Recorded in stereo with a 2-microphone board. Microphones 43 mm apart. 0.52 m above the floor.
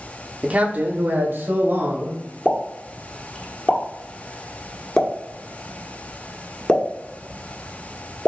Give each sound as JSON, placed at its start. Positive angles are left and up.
{"t": 0.4, "sound": "a man speaking", "side_deg": -30, "distance_m": 0.8}
{"t": 2.5, "sound": "a pop", "side_deg": 30, "distance_m": 1.2}